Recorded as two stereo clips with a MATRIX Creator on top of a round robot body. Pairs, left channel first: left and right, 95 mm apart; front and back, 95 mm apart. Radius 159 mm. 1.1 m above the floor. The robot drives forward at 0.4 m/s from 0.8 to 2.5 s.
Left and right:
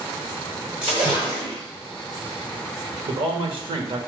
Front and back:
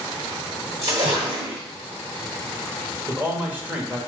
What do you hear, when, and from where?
0.8 s a splash: 125° right, 0.8 m; by 1.6 s 150° right, 1.0 m
3.1 s a man speaking: 110° right, 1.1 m